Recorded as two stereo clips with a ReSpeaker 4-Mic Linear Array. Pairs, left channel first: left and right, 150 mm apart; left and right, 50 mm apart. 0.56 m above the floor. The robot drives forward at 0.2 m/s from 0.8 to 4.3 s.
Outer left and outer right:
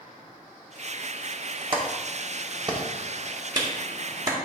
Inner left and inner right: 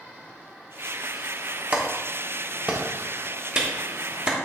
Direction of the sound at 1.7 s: 35° right (ahead or behind).